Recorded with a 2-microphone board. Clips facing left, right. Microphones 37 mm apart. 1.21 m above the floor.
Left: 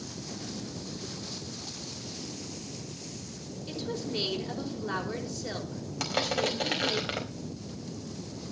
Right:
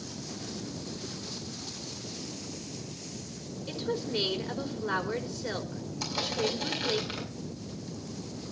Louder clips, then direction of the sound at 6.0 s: Left 2 dB; 80° left.